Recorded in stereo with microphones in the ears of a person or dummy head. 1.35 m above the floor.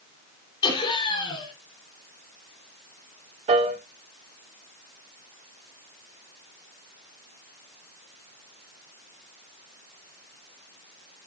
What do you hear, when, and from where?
0.6 s laughter: 30° left (ahead or behind), 5 m
3.5 s a piano: 35° right (ahead or behind), 1.8 m